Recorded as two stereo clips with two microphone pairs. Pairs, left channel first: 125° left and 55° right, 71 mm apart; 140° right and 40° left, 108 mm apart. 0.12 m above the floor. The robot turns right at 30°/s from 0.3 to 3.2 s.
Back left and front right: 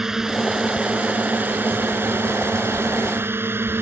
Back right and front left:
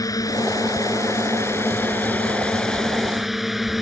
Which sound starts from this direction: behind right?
A drone, at 0.0 s.